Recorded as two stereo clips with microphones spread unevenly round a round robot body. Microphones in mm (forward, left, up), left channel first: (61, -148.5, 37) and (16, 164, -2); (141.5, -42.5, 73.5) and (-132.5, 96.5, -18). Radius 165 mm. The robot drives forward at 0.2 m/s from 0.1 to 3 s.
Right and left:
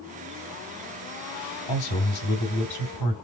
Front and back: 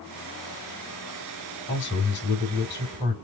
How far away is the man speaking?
About 2.5 m.